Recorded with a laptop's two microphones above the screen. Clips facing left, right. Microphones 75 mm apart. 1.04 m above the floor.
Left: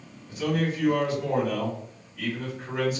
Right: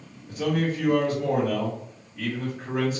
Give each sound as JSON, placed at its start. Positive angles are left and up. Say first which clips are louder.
{"t": 0.3, "sound": "a man speaking", "louder": "right 1 dB", "side_deg": -35, "distance_m": 1.5}